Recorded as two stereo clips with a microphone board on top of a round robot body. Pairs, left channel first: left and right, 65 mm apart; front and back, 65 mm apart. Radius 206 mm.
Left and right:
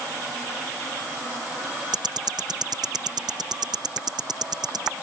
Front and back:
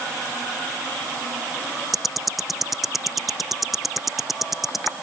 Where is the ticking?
90° right.